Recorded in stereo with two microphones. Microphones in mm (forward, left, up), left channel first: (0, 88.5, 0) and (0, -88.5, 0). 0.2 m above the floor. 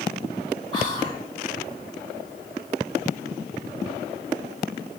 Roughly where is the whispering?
Left.